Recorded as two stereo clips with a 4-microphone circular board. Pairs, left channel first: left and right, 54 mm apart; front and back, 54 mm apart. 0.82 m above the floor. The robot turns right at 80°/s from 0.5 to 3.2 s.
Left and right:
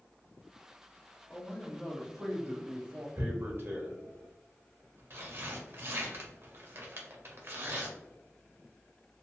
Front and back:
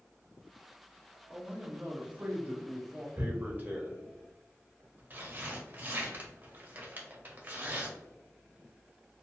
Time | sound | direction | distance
1.3 | a man speaking | 125° left | 0.6 m
3.2 | tearing paper | 130° right | 0.6 m